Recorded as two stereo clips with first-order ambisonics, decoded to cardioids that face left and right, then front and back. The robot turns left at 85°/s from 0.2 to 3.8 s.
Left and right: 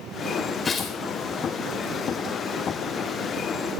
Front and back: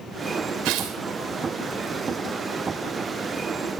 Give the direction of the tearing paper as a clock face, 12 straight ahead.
6 o'clock.